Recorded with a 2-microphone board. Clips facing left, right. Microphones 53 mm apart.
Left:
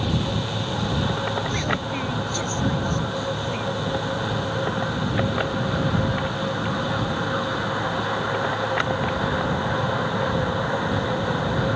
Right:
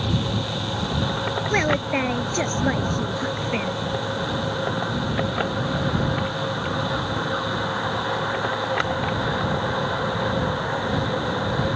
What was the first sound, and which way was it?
A woman speaking, 50° right (ahead or behind).